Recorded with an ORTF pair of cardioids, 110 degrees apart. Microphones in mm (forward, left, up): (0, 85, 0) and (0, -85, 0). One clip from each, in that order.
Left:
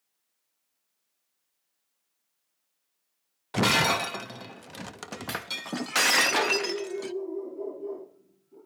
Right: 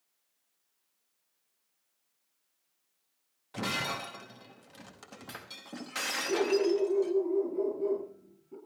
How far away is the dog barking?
About 8 m.